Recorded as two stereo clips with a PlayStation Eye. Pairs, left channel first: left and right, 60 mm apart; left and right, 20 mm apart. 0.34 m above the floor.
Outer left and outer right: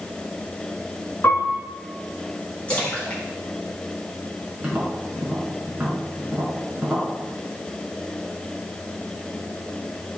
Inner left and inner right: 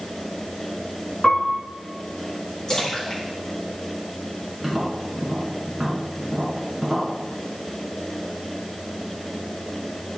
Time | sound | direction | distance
1.2 | a piano | 40° left (ahead or behind) | 3 m
2.7 | a splash | 20° left (ahead or behind) | 3.5 m
4.6 | tapping | 30° right (ahead or behind) | 5 m